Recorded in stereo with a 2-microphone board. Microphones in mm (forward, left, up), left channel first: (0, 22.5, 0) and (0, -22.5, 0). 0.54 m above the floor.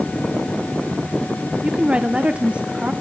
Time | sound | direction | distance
1.6 | a woman speaking | 30° right (ahead or behind) | 1.1 m